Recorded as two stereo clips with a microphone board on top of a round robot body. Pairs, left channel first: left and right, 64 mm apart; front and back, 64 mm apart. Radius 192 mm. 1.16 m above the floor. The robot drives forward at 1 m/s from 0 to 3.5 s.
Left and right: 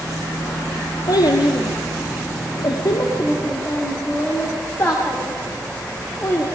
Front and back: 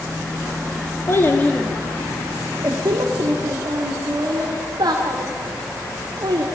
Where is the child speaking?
55° left, 1.3 m; by 6.5 s 150° left, 2 m.